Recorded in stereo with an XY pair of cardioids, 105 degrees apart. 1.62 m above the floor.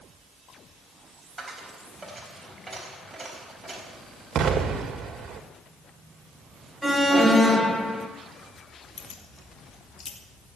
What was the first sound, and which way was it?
A dropped coin, 20° right.